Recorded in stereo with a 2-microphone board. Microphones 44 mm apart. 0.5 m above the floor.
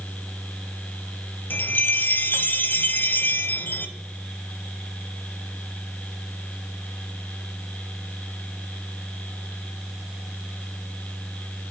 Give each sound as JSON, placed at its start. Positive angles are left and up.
{"t": 1.5, "sound": "a chime", "side_deg": 50, "distance_m": 0.5}